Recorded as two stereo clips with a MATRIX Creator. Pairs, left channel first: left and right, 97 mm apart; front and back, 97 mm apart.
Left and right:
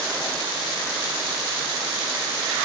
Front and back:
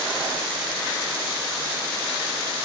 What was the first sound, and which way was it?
Only background noise.